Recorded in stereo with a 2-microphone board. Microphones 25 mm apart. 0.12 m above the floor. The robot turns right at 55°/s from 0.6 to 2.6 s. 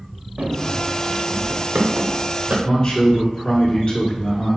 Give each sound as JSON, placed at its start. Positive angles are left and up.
{"t": 0.4, "sound": "running footsteps", "side_deg": -75, "distance_m": 1.0}
{"t": 2.6, "sound": "a man speaking", "side_deg": 25, "distance_m": 1.3}